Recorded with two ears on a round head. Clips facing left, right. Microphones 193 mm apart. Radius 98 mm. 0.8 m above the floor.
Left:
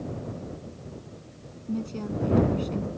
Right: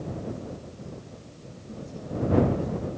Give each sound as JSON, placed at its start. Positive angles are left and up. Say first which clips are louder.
{"t": 1.7, "sound": "a woman speaking", "louder": "left 6 dB", "side_deg": 80}